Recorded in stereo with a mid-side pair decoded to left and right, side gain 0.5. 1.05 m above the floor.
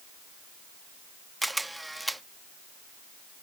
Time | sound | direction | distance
1.4 | a camera shutter | 10° right | ?